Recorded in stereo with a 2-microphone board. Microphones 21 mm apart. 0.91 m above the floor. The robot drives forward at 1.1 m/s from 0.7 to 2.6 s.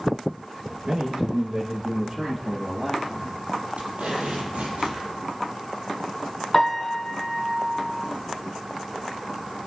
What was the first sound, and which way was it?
A man speaking, 45° right (ahead or behind).